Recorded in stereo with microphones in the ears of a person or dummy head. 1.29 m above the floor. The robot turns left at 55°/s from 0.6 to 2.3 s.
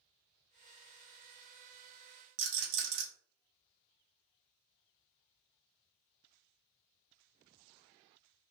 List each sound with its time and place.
2.4 s a rattle: 80° right, 1.5 m